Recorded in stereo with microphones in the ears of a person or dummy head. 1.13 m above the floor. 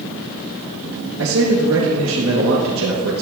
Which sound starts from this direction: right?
A man speaking, at 1.2 s.